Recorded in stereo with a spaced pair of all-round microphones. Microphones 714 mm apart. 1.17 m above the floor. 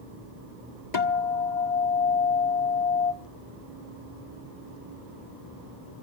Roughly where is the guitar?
Left.